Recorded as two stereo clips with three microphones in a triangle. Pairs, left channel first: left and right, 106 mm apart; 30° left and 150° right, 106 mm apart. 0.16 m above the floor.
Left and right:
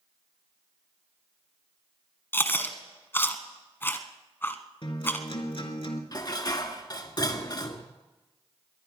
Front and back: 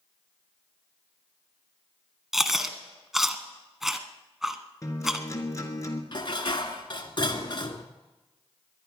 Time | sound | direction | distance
2.3 | chewing | 125° left | 1.1 m
4.8 | a guitar | 80° left | 1.9 m
6.1 | dishes clattering | 55° left | 1.4 m